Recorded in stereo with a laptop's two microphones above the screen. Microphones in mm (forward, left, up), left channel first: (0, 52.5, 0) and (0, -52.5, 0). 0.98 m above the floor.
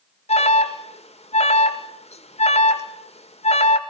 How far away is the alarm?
About 2.0 m.